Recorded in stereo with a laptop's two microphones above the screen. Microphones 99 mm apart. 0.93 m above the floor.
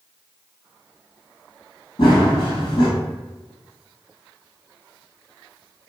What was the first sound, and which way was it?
Running footsteps, 50° left (ahead or behind).